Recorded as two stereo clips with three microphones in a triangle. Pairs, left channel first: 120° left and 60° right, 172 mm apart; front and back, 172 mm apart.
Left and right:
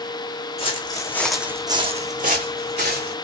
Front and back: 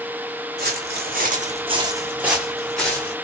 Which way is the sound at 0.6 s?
175° left.